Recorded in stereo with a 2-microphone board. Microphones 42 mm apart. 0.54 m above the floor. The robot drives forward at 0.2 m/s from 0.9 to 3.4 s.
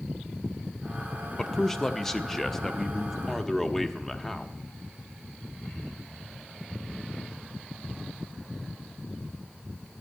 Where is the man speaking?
10° left (ahead or behind), 0.6 m.